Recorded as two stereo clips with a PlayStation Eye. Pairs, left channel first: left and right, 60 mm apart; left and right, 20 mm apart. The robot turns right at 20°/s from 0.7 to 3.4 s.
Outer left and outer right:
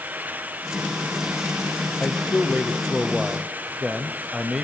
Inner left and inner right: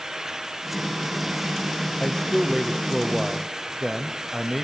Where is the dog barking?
No dog barking in this recording.